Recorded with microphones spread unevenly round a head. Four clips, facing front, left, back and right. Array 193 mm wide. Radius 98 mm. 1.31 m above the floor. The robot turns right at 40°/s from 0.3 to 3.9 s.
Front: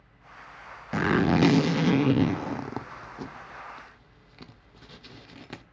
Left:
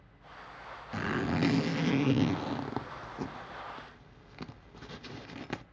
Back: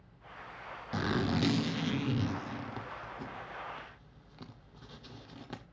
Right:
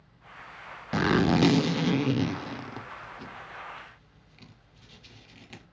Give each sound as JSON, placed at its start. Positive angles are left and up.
{"t": 0.9, "sound": "a zipper", "azimuth_deg": -50, "distance_m": 0.7}